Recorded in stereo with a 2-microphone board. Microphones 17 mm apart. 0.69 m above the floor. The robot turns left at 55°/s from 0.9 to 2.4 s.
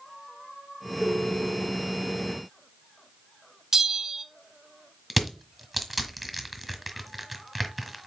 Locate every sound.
1.0 s a ringtone: 35° right, 3.5 m; by 1.9 s 85° right, 3.5 m
3.7 s a bell: 40° right (ahead or behind), 0.9 m
5.1 s crushing: 5° right (ahead or behind), 1.7 m